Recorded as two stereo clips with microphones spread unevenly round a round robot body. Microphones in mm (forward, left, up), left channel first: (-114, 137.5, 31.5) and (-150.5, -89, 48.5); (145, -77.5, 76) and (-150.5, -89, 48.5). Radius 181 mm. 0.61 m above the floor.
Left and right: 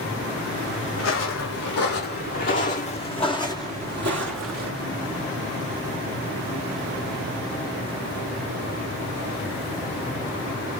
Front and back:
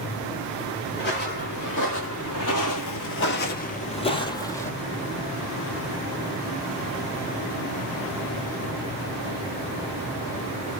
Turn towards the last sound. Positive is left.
turn(degrees=-75)